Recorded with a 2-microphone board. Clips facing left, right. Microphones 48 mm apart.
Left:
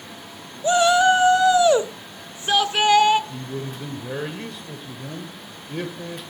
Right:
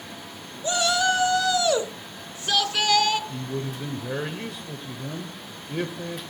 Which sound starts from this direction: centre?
A man speaking, at 3.3 s.